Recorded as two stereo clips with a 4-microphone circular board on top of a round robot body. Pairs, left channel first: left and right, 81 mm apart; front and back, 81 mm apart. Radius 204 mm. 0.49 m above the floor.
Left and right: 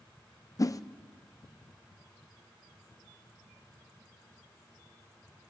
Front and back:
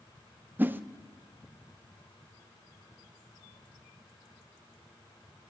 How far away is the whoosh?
About 0.7 m.